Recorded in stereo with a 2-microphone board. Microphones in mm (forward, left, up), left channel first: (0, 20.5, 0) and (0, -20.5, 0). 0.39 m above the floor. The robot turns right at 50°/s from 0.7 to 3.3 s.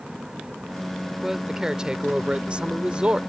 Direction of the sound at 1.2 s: 10° right (ahead or behind).